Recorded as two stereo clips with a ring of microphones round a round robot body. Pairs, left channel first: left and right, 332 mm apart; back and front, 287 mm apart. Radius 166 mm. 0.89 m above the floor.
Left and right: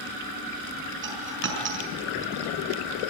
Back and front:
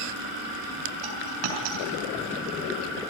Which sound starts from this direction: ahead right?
A dropped coin, at 1.0 s.